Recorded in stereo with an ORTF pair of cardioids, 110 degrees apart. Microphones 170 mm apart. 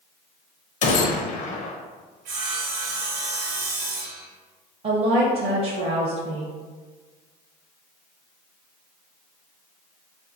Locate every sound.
0.8 s a gunshot: 50° left, 0.5 m
2.2 s sawing: 70° right, 0.7 m
4.8 s a woman speaking: 35° right, 0.6 m